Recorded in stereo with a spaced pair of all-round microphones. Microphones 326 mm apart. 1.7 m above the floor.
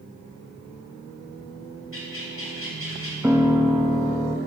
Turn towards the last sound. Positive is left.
turn(degrees=-5)  # may be behind; listen again after turning